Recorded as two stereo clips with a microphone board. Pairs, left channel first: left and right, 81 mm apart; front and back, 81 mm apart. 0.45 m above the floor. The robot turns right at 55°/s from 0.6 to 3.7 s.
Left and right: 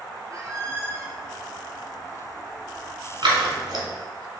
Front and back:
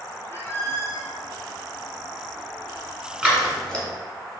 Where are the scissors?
105° right, 1.0 m; by 3.9 s 75° right, 1.0 m.